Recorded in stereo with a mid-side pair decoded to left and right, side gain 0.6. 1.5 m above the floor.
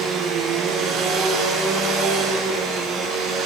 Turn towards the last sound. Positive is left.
turn(degrees=-60)